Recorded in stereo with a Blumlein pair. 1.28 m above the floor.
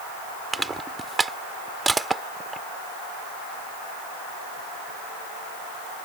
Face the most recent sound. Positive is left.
turn(degrees=-10)